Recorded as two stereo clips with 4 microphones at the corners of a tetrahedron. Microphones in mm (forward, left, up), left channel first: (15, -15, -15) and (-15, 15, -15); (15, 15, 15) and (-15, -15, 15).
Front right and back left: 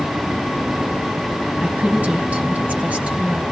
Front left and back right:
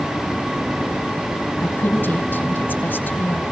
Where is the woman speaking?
80° left, 3.5 m.